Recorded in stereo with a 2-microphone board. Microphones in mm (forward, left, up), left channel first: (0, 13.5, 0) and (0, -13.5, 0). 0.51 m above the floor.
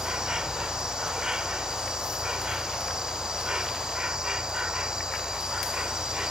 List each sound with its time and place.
0.0 s an insect: 25° right (ahead or behind)